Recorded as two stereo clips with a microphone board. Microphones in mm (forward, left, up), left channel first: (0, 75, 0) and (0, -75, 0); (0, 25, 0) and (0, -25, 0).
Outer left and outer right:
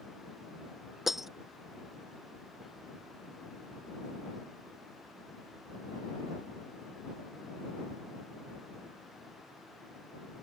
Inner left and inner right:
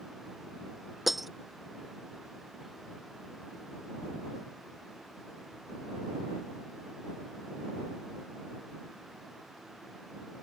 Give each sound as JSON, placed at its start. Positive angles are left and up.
{"t": 1.1, "sound": "breaking glass", "side_deg": 0}